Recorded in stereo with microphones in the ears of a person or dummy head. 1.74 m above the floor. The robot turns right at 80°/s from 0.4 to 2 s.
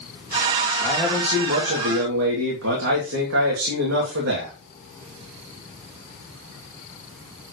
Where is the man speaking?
165° left, 2.5 m; by 4.5 s 95° right, 2.5 m.